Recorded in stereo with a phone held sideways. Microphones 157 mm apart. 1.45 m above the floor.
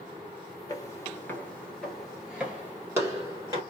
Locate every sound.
0.7 s footsteps: 20° left (ahead or behind), 1.6 m; by 3.6 s 25° right (ahead or behind), 1.9 m